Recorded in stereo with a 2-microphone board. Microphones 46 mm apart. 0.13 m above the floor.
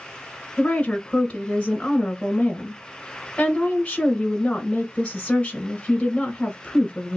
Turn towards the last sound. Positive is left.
turn(degrees=20)  # may be behind; listen again after turning